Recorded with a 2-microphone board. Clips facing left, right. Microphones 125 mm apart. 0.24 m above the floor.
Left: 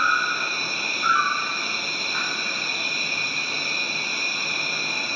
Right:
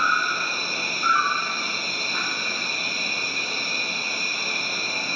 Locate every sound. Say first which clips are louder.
0.0 s an insect: even; 30° right (ahead or behind), 1.6 m